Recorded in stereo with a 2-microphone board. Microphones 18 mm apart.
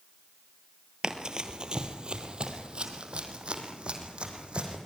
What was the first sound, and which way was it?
Running footsteps, 45° right (ahead or behind).